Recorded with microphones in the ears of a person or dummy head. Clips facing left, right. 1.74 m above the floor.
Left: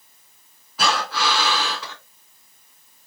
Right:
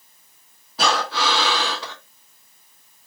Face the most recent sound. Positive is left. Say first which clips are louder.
# right 1 dB
turn(degrees=-35)  # may be behind; listen again after turning